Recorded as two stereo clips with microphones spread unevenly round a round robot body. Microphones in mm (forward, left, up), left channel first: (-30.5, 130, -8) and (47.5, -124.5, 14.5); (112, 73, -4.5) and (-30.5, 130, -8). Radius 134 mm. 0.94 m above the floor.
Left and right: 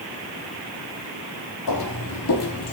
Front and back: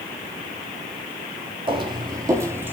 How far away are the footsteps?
About 1.7 m.